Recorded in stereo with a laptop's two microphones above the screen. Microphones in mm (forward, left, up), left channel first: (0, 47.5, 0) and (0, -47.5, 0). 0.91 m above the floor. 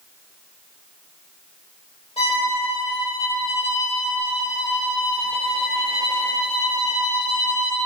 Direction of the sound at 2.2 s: 75° left (ahead or behind).